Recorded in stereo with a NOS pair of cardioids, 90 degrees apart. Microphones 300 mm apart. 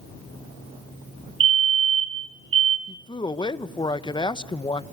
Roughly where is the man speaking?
Ahead.